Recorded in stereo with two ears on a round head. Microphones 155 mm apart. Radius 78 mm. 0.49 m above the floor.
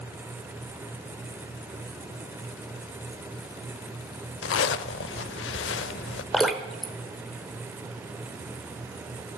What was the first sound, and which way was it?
A zipper, 75° left (ahead or behind).